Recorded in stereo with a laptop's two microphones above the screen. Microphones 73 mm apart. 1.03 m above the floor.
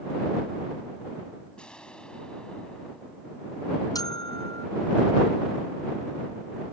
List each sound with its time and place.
1.6 s an explosion: 10° left (ahead or behind)
4.0 s a bell: 60° left (ahead or behind)